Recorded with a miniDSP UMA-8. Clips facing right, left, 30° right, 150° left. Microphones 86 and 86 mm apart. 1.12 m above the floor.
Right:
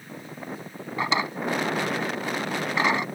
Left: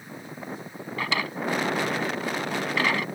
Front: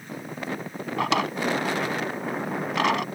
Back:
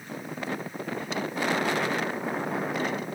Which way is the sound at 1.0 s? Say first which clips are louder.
Right 3 dB, front 7 dB; 20° right.